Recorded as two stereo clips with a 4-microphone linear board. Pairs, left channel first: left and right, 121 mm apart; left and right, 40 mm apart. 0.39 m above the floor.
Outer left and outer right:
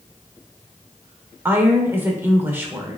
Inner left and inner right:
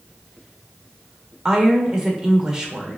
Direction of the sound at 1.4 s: 15° right (ahead or behind).